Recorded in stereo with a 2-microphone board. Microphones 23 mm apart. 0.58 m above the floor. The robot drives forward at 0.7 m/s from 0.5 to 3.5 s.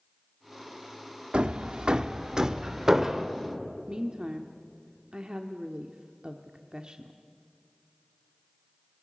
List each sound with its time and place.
1.3 s hammering: 50° right (ahead or behind), 0.7 m; by 3.3 s 20° right (ahead or behind), 1.6 m
3.9 s a woman speaking: 40° right (ahead or behind), 1.4 m